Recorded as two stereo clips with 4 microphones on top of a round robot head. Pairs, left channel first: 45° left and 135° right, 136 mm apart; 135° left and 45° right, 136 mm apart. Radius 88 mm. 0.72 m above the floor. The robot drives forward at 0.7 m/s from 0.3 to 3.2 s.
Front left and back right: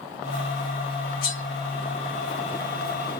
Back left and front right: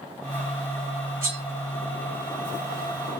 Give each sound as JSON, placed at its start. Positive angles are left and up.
{"t": 1.2, "sound": "cutlery clinking", "azimuth_deg": 30, "distance_m": 1.7}